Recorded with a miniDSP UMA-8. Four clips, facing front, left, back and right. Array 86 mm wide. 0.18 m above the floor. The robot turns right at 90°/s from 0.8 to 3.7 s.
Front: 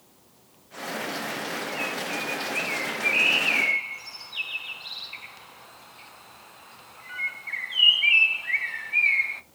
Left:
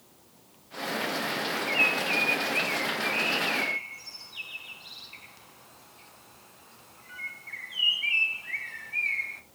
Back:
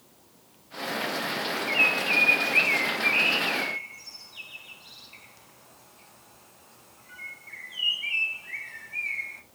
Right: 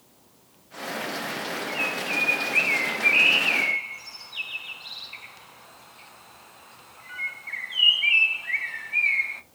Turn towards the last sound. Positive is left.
turn(degrees=-35)